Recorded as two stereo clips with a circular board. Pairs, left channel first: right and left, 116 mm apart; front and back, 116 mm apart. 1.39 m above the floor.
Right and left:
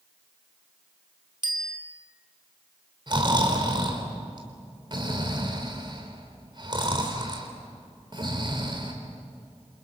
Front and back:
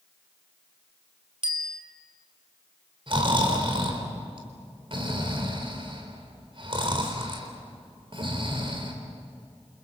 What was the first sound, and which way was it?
A bicycle bell, 140° left.